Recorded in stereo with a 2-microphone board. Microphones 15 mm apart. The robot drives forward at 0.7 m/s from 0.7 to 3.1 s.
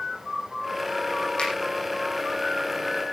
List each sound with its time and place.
1.4 s a finger snap: 75° left (ahead or behind), 7 m